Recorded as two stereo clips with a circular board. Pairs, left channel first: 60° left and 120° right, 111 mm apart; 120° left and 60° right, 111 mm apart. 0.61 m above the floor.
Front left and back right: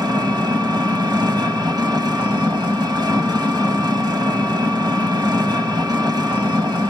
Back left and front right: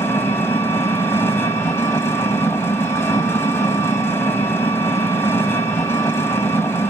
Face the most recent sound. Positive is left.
turn(degrees=-170)